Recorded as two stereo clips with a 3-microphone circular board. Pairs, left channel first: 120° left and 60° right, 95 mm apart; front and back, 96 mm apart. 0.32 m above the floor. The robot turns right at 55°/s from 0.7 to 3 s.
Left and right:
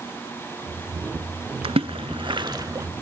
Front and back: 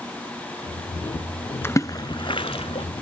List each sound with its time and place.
1.6 s a splash: 65° right, 0.5 m; by 2.9 s straight ahead, 0.5 m